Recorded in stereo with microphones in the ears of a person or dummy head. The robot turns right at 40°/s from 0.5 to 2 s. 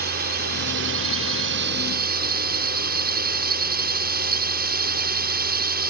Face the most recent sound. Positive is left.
turn(degrees=-60)